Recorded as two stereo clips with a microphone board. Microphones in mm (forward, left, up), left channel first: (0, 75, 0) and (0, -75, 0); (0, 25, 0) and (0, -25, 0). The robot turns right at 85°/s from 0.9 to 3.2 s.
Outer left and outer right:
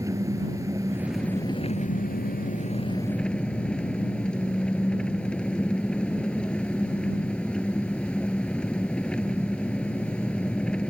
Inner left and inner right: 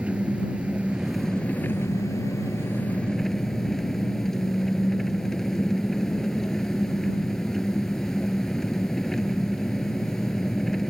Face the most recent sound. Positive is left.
turn(degrees=175)